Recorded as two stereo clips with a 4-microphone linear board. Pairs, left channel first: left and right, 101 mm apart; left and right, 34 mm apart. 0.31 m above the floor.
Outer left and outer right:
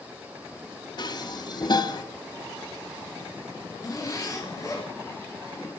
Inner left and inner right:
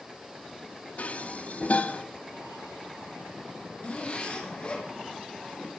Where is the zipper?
35° left (ahead or behind), 4.5 m.